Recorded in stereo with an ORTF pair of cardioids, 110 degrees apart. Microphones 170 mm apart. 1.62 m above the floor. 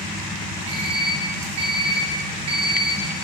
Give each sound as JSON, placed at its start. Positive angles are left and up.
{"t": 0.7, "sound": "an alarm clock", "azimuth_deg": -70, "distance_m": 3.0}